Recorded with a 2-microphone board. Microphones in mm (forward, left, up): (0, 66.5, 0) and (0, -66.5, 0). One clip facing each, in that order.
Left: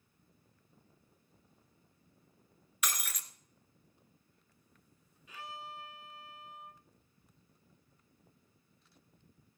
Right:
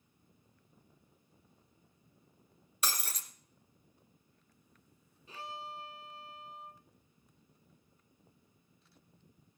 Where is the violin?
35° right (ahead or behind), 0.7 m.